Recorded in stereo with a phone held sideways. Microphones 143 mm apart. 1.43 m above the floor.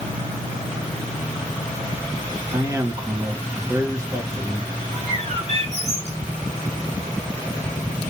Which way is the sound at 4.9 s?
45° right (ahead or behind).